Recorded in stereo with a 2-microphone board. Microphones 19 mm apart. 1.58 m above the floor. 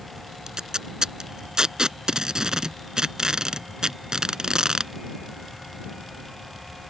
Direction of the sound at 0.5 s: 40° right (ahead or behind).